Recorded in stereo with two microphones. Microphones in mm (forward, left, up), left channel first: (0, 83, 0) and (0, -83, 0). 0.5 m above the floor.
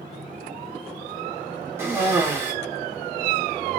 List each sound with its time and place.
1.8 s a cough: 15° right (ahead or behind), 1.7 m